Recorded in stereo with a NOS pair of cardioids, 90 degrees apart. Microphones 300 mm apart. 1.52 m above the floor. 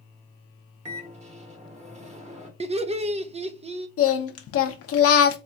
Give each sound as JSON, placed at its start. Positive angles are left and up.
{"t": 0.8, "sound": "a microwave", "azimuth_deg": -20, "distance_m": 1.5}
{"t": 2.6, "sound": "laughter", "azimuth_deg": -20, "distance_m": 0.7}
{"t": 4.0, "sound": "singing", "azimuth_deg": 50, "distance_m": 0.8}